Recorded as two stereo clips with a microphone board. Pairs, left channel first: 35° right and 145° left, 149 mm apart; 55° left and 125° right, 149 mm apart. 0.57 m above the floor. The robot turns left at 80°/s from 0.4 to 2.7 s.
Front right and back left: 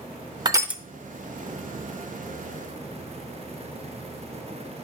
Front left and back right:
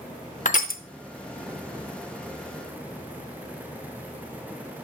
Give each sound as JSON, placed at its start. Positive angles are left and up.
{"t": 0.5, "sound": "crushing", "azimuth_deg": 85, "distance_m": 0.6}